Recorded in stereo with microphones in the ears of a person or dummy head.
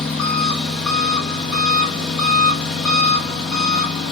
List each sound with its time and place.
0.0 s an engine running: 5° left (ahead or behind), 1.4 m